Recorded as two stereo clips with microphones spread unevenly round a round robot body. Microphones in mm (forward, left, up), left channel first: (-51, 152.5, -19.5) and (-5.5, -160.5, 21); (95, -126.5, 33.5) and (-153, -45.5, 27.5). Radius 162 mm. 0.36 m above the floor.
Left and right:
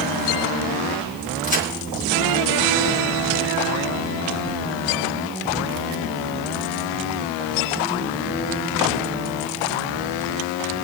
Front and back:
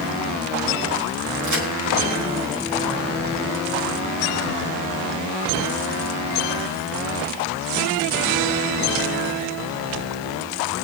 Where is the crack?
165° left, 3.5 m.